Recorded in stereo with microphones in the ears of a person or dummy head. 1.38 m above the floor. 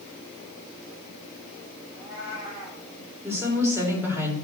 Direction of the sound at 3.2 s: 10° right (ahead or behind).